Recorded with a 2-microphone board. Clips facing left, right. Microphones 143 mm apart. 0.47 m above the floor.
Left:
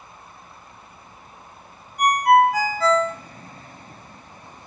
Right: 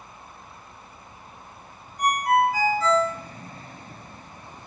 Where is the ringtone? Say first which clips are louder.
Left 5 dB; 70° left (ahead or behind), 0.5 m.